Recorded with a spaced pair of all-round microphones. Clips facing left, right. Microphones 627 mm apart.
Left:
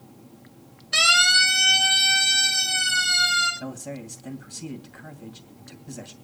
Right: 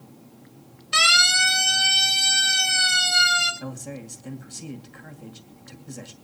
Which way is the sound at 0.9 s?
30° right (ahead or behind).